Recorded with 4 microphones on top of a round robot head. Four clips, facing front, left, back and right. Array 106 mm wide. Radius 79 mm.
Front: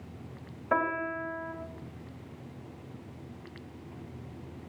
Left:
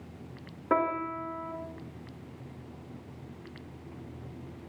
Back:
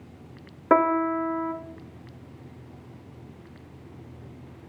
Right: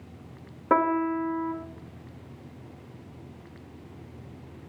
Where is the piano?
165° right, 1.1 m.